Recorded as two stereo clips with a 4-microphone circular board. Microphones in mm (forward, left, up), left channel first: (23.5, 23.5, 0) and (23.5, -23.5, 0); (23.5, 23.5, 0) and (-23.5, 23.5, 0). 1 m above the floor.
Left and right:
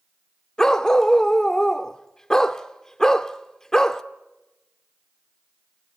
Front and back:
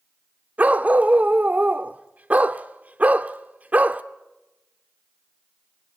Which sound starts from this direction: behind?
A dog barking, at 0.6 s.